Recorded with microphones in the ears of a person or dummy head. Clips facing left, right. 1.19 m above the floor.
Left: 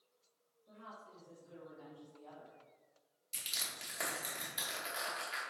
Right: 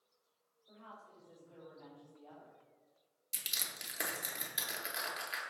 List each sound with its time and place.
0.7 s a woman speaking: 70° left (ahead or behind), 1.6 m; by 2.6 s 65° left (ahead or behind), 0.7 m
3.3 s crushing: 10° right (ahead or behind), 0.7 m